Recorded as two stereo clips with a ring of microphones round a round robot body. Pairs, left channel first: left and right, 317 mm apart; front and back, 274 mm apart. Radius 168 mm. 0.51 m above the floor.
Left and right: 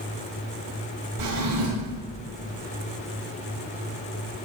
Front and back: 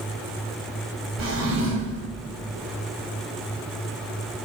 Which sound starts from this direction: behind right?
A drawer, at 1.2 s.